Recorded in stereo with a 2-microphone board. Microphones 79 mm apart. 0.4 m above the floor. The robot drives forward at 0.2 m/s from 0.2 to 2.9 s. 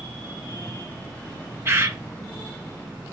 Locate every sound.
1.6 s a bird: 30° right (ahead or behind), 0.5 m